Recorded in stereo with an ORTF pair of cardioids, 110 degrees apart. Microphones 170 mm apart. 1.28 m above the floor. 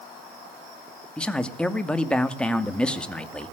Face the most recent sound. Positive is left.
turn(degrees=5)